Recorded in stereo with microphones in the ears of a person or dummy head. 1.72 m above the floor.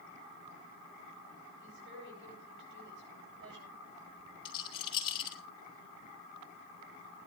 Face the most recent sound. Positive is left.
turn(degrees=25)  # may be behind; listen again after turning